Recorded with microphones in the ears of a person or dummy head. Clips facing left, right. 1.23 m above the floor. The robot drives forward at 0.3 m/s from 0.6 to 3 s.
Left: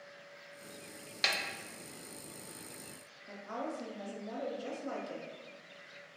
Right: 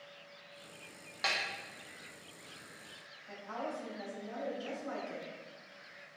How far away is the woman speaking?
About 0.7 m.